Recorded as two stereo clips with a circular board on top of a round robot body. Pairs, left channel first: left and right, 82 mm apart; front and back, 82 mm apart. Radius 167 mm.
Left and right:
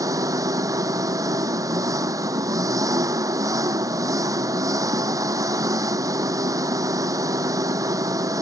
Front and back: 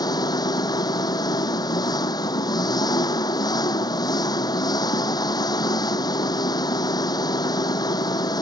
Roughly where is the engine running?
Ahead right.